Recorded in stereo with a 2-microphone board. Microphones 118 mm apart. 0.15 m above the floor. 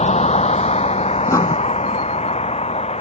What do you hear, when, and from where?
0.0 s a vehicle: 70° left (ahead or behind); by 3.0 s 65° left (ahead or behind)
1.3 s writing: 25° left (ahead or behind)